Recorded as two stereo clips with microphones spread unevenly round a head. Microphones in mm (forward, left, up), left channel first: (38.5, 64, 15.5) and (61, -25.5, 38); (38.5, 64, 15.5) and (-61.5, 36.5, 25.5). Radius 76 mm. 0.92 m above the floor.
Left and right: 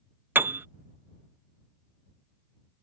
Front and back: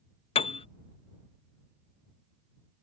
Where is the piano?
5° right.